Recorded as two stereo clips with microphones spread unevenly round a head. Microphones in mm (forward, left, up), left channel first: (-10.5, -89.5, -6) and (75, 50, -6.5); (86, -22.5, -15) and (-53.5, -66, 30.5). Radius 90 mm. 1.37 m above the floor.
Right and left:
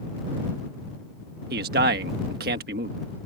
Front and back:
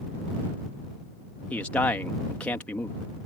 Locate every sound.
1.5 s a man speaking: 100° left